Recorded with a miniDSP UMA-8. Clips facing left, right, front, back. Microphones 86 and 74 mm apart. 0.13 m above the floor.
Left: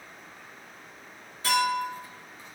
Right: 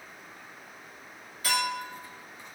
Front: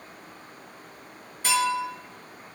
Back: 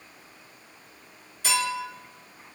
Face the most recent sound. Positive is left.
turn(degrees=40)